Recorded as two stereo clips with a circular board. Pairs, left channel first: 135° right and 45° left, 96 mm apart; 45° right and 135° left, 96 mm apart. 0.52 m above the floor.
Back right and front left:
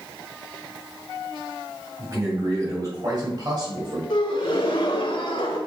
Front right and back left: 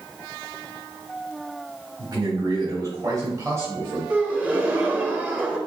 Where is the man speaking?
95° left, 3 m; by 4.0 s 70° left, 2.0 m.